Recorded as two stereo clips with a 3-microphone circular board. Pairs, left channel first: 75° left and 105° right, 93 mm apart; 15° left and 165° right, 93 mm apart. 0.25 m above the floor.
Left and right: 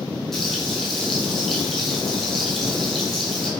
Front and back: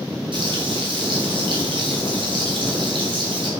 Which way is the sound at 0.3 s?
160° left.